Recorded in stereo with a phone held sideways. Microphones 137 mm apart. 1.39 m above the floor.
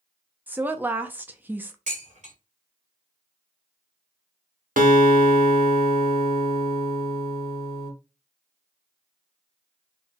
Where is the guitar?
85° right, 1.1 m.